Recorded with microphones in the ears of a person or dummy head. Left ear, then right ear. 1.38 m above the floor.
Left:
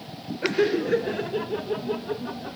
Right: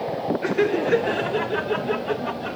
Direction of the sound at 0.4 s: 15° right (ahead or behind).